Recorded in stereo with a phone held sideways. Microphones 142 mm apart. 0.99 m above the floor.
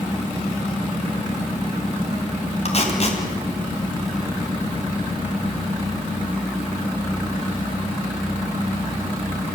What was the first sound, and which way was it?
Tape being pulled, 50° left (ahead or behind).